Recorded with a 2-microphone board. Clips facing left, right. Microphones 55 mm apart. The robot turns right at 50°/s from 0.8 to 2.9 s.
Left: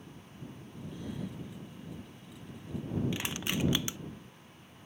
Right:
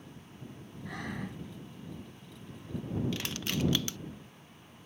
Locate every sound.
0.8 s breathing: 70° right (ahead or behind); by 1.4 s 40° right (ahead or behind)
3.1 s crushing: 15° left (ahead or behind)